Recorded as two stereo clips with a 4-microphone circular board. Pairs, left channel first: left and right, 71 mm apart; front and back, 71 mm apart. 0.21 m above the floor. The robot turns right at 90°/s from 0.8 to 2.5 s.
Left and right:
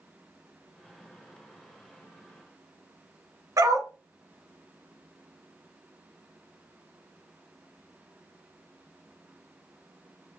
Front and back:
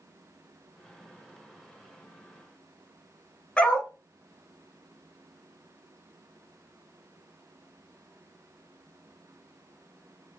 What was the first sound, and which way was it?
A dog barking, 70° right.